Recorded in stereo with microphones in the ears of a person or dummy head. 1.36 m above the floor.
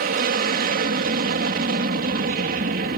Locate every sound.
0.0 s an aircraft: 45° right (ahead or behind)